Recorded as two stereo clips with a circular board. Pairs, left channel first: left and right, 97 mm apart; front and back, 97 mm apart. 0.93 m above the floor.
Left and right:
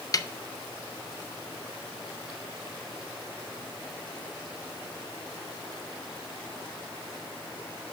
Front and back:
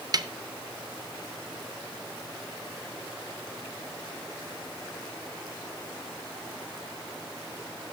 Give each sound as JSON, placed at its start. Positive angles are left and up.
{"t": 0.1, "sound": "a snare drum", "azimuth_deg": 135, "distance_m": 0.6}